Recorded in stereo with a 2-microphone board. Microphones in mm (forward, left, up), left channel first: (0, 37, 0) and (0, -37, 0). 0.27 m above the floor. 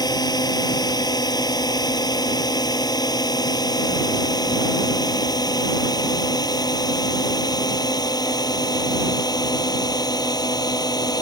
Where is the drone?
65° left (ahead or behind).